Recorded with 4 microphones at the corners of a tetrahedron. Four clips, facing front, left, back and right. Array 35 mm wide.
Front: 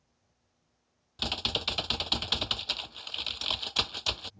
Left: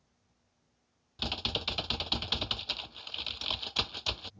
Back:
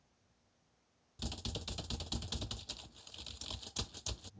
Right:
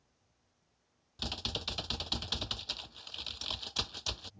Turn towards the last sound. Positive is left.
turn(degrees=30)